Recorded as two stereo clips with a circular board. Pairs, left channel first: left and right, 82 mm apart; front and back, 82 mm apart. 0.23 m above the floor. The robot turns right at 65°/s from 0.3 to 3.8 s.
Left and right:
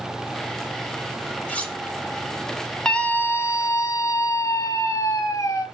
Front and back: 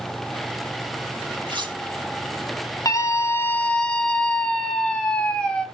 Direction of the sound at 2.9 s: 15° left.